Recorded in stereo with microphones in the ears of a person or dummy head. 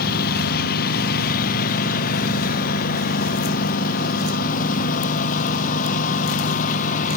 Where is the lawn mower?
55° left (ahead or behind); by 7.2 s 50° left (ahead or behind).